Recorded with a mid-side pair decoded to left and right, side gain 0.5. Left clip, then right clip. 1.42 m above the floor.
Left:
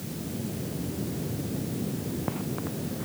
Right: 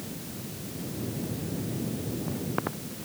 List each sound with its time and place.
Only background noise.